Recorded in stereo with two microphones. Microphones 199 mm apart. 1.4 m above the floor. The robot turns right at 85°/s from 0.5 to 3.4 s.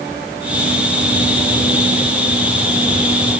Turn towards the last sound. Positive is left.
No sound to turn to.